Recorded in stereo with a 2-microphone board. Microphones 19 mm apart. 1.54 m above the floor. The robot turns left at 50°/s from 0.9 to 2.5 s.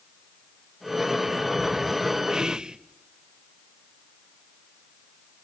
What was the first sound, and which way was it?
Whispering, 35° right (ahead or behind).